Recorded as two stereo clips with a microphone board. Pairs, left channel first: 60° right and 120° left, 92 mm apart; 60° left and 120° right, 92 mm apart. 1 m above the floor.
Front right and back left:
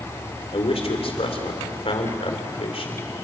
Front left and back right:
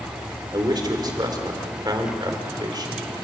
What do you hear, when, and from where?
0.5 s a man speaking: 75° right, 4 m